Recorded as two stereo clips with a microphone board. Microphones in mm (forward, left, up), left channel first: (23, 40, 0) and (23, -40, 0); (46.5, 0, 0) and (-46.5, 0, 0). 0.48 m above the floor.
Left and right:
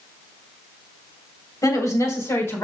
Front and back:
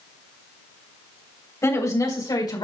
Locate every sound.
1.6 s a woman speaking: 50° left, 3 m; by 2.6 s 35° left, 4 m